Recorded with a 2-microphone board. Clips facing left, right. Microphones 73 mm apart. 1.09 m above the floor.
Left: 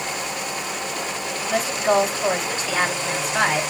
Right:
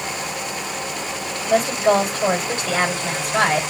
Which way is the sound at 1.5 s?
70° right (ahead or behind).